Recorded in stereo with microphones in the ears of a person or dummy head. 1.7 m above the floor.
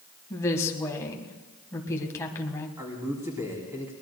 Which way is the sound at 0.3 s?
15° left (ahead or behind).